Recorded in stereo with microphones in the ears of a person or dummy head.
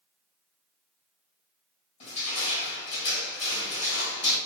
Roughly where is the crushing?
Left.